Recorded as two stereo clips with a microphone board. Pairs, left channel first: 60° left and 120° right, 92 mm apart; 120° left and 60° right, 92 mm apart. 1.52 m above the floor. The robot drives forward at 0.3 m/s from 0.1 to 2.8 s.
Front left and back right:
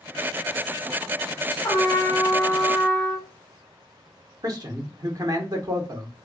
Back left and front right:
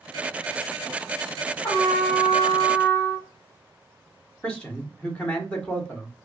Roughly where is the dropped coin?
No dropped coin in this recording.